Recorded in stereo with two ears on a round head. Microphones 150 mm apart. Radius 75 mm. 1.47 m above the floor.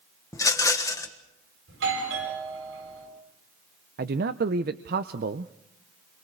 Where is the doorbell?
80° right, 9 m.